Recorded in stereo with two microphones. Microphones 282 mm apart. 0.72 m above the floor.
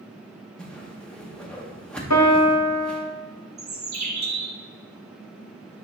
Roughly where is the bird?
Right.